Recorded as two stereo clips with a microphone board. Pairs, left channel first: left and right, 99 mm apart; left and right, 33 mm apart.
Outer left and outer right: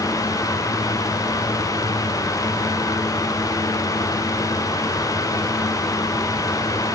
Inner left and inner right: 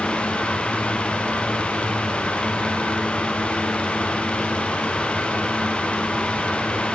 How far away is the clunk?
I don't hear a clunk.